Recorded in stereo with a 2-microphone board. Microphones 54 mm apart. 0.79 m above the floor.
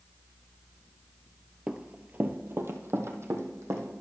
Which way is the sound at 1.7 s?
10° right (ahead or behind).